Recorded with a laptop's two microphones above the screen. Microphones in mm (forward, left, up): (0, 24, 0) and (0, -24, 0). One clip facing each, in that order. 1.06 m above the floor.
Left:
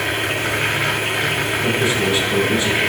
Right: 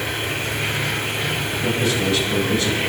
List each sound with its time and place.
0.0 s a machine running: 85° left, 2.0 m
1.6 s a man speaking: 20° left (ahead or behind), 6 m